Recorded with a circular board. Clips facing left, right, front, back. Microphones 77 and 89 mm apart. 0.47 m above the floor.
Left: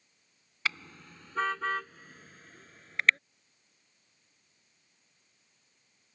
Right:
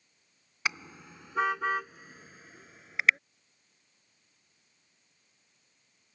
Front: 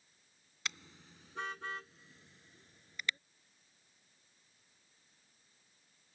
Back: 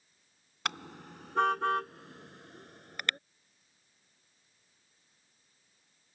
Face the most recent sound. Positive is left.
turn(degrees=-170)